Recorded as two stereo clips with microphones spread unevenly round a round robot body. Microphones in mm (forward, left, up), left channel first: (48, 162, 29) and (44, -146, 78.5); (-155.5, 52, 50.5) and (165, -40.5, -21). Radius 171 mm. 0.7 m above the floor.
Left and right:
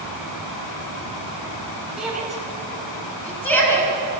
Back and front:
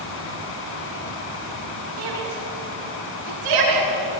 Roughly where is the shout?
Ahead.